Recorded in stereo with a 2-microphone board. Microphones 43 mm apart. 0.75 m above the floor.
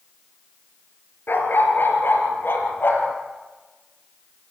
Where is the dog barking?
60° left (ahead or behind), 3 m.